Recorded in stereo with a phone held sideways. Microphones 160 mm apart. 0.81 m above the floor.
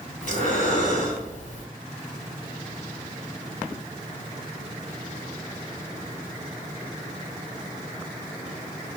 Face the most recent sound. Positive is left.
turn(degrees=55)  # may be behind; listen again after turning